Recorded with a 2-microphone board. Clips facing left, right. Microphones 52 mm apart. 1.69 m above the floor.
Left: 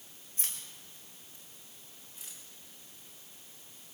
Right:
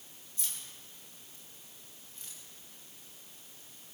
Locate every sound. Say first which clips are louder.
0.4 s keys jangling: left 1 dB; 35° left (ahead or behind), 4.5 m; by 2.4 s 5° left (ahead or behind), 5.5 m